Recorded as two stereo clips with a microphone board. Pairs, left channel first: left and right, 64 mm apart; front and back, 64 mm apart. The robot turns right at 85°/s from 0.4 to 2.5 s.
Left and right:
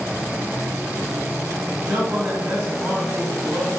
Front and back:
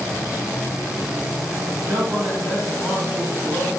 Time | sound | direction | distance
1.8 | a man speaking | 175° right | 1.8 m